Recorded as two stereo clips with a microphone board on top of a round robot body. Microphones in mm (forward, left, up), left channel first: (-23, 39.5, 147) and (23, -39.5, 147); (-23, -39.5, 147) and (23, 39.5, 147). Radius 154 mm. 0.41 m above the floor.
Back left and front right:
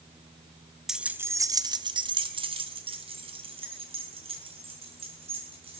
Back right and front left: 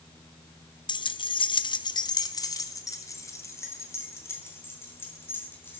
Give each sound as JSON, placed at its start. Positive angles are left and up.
{"t": 0.9, "sound": "keys jangling", "azimuth_deg": -145, "distance_m": 0.9}